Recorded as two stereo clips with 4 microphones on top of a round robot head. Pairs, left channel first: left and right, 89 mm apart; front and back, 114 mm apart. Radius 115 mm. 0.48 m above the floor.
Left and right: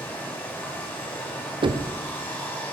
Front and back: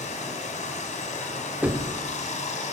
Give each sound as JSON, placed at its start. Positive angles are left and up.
{"t": 0.0, "sound": "running water", "azimuth_deg": 15, "distance_m": 1.6}
{"t": 1.6, "sound": "knocking", "azimuth_deg": -105, "distance_m": 0.9}